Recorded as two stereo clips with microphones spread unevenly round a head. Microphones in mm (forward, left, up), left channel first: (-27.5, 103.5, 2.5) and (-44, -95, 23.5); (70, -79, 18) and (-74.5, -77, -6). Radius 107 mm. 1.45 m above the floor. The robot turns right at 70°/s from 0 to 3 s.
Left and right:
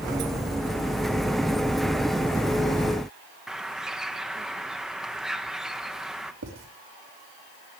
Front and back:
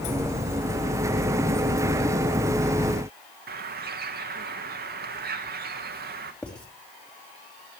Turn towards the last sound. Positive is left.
turn(degrees=-85)